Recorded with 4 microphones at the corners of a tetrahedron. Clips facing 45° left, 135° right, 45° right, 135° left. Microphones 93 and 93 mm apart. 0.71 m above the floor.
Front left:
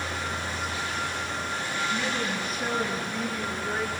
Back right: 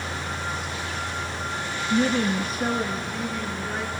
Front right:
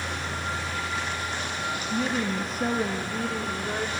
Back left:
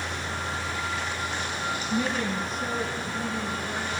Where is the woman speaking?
140° right, 1.0 m; by 3.9 s 30° right, 2 m.